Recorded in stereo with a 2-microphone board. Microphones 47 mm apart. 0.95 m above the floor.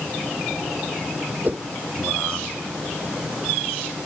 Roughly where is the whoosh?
Right.